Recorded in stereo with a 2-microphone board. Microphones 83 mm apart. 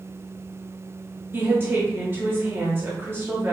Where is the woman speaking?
30° right (ahead or behind), 1.5 m.